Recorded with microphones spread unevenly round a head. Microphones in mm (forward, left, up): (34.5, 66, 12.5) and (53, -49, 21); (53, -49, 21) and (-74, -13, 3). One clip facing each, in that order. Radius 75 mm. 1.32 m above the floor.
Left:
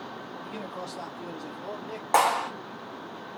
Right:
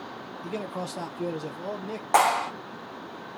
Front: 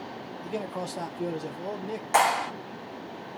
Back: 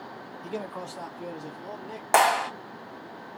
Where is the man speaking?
120° right, 0.5 m; by 2.0 s 35° right, 1.5 m.